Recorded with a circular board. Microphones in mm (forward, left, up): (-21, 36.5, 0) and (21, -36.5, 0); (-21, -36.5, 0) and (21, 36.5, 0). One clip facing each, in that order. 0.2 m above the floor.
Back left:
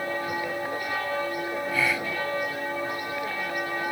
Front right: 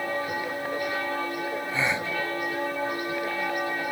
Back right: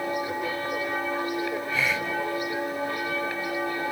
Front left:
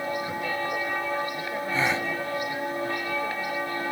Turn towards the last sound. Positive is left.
turn(degrees=5)